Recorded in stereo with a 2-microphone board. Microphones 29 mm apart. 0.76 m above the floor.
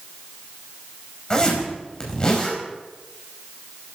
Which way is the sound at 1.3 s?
30° left (ahead or behind).